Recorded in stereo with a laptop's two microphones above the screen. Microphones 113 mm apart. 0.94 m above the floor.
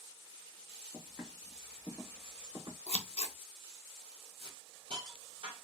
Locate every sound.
0.9 s footsteps: 10° right (ahead or behind), 1.1 m; by 2.8 s 40° right (ahead or behind), 1.8 m
2.9 s scissors: 65° left (ahead or behind), 0.6 m
4.4 s a hiss: 50° right (ahead or behind), 1.6 m